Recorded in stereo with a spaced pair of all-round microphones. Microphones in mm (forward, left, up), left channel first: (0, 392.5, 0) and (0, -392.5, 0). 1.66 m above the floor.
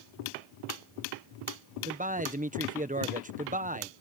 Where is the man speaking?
10° right (ahead or behind).